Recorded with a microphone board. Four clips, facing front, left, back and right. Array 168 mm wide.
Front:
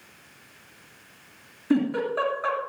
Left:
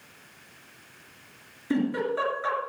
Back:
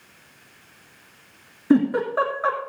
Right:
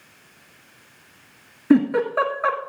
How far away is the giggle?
About 2.5 m.